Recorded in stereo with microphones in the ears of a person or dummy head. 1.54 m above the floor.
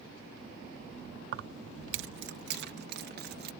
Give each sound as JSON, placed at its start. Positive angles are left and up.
{"t": 1.3, "sound": "keys jangling", "side_deg": -65}